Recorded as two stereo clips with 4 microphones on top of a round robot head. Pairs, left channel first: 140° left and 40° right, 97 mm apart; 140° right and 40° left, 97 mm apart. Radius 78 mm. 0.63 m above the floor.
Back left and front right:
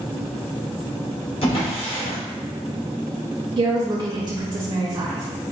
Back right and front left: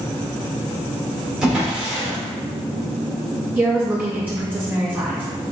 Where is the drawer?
120° left, 1.2 m.